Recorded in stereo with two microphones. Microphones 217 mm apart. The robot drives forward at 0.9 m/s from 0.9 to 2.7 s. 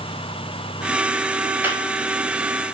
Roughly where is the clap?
Centre.